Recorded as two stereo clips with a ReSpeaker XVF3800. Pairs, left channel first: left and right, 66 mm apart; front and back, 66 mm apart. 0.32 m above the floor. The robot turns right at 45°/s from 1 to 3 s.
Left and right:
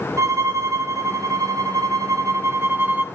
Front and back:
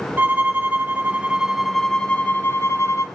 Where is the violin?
120° right, 1.8 m; by 3.0 s 30° right, 1.8 m.